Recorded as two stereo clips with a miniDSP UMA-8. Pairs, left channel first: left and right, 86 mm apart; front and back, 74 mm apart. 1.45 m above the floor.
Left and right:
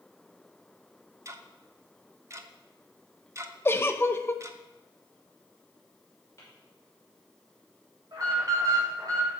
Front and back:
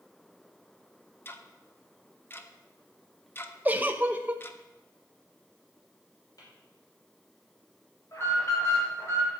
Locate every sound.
1.2 s ticking: 50° right, 0.8 m
3.6 s a giggle: 130° left, 0.7 m
6.4 s tapping: 35° left, 6 m
8.1 s an alarm: 50° right, 3.5 m